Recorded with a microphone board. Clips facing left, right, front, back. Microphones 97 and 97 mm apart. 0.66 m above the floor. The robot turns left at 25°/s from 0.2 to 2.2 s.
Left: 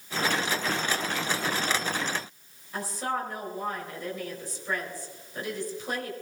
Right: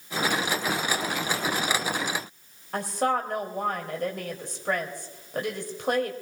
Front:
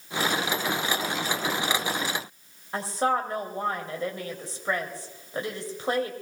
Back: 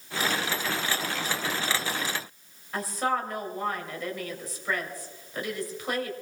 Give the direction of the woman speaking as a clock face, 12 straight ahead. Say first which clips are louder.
Right 6 dB, front 3 dB; 2 o'clock.